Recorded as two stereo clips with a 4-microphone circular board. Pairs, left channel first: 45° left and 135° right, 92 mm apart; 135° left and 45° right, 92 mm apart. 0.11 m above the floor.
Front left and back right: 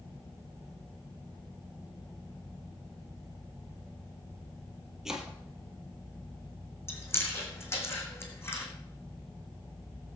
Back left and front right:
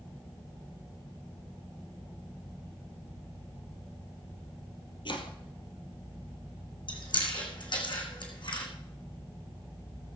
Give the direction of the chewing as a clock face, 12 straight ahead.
8 o'clock.